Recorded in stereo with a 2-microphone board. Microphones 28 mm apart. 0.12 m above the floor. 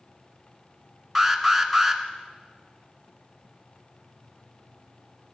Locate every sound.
1.1 s an alarm: centre (ahead or behind), 1.5 m